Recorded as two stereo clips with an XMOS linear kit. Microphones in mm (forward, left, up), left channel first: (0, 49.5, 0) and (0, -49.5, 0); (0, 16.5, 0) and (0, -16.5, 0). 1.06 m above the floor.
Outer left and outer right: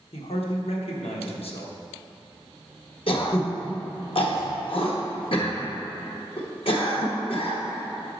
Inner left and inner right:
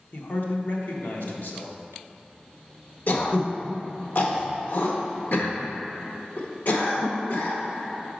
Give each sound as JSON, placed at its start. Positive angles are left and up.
{"t": 0.1, "sound": "a man speaking", "side_deg": 70, "distance_m": 1.1}
{"t": 3.1, "sound": "throat clearing", "side_deg": 65, "distance_m": 0.9}